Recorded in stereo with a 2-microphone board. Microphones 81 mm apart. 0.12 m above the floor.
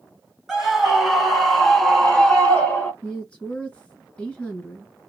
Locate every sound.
0.5 s a scream: 5° right (ahead or behind), 1.5 m; by 2.9 s 15° left (ahead or behind), 1.3 m
3.0 s a woman speaking: 15° left (ahead or behind), 2 m